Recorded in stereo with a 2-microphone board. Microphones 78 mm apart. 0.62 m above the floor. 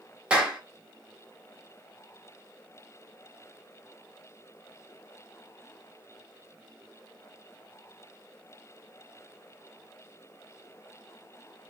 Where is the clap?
15° right (ahead or behind), 1.4 m.